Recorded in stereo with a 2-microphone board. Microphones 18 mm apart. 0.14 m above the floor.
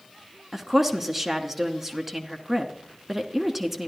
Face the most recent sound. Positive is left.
turn(degrees=-15)  # may be behind; listen again after turning